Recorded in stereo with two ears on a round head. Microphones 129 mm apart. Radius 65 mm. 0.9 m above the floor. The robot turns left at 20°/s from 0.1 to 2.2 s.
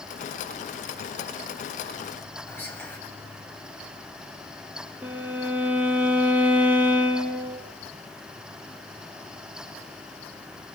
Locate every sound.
2.5 s whispering: 15° left (ahead or behind), 5.5 m
5.0 s a violin: 10° right (ahead or behind), 1.9 m